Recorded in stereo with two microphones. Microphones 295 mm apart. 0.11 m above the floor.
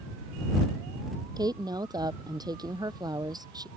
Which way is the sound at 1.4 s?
15° right (ahead or behind).